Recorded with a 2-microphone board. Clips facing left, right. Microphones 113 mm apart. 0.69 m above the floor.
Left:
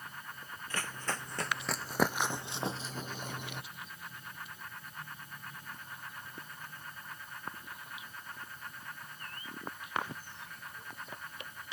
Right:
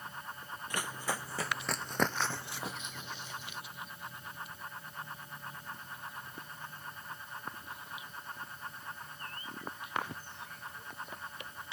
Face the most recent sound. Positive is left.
turn(degrees=60)  # may be behind; listen again after turning